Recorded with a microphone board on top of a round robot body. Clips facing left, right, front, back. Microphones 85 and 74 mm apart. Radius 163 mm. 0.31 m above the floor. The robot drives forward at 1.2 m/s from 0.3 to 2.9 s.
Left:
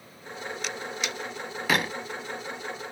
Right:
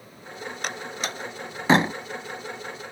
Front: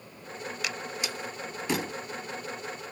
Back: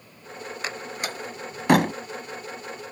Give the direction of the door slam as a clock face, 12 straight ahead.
4 o'clock.